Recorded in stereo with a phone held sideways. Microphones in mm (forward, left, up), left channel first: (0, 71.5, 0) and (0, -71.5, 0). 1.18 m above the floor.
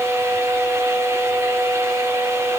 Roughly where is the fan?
Centre.